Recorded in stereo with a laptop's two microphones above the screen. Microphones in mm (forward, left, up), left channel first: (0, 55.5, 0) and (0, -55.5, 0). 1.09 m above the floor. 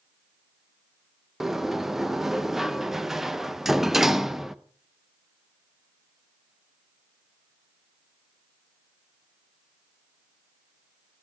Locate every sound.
1.4 s a sliding door: 5° right (ahead or behind), 0.5 m